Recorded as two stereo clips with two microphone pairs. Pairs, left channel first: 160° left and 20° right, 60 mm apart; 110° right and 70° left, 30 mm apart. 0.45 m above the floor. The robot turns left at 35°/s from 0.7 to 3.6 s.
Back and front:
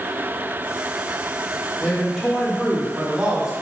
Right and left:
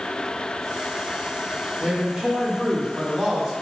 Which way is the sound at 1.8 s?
95° left.